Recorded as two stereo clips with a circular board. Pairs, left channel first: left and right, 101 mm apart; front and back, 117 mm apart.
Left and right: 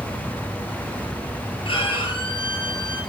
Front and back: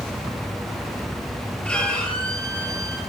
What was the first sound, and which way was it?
A violin, 80° left.